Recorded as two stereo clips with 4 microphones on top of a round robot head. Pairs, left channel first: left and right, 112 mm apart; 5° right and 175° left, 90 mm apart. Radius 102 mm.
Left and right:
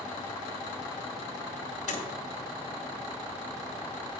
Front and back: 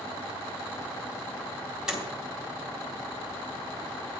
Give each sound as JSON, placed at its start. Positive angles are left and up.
{"t": 1.9, "sound": "a door slam", "azimuth_deg": 90, "distance_m": 2.0}